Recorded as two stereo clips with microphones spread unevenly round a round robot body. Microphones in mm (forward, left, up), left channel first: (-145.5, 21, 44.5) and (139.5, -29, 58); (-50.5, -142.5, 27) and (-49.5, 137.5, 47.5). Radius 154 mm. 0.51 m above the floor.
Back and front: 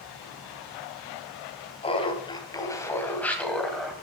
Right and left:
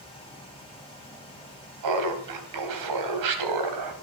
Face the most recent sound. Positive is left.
turn(degrees=80)